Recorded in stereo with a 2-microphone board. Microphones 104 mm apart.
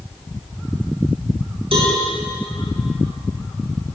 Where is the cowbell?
70° right (ahead or behind), 6 m.